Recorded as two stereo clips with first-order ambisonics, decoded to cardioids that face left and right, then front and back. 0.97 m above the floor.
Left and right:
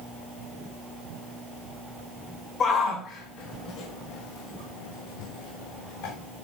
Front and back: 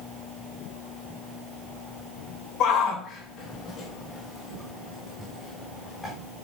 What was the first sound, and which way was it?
A shout, 35° left.